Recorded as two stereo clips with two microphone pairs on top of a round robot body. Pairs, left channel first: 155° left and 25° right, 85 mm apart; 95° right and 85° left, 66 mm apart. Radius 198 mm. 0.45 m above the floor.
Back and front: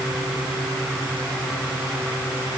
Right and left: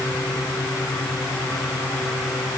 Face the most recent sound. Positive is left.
No sound to turn to.